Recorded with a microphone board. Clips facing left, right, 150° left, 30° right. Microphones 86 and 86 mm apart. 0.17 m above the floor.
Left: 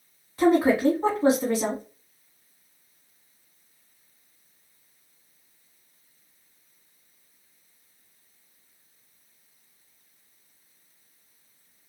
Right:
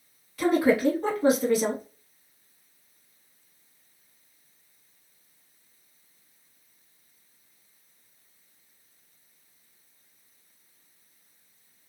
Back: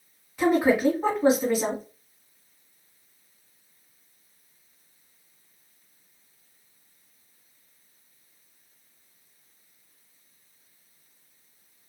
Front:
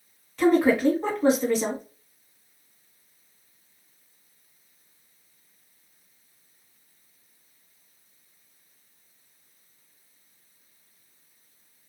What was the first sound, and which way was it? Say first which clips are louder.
A woman speaking: left 2 dB, front 1 dB; 80° left.